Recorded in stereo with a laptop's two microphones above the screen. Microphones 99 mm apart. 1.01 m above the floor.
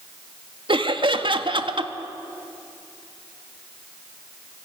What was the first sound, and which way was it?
Laughter, 55° right (ahead or behind).